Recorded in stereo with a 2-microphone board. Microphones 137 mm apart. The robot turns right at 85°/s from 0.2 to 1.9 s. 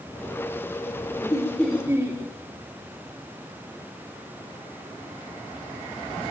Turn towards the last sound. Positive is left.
turn(degrees=-160)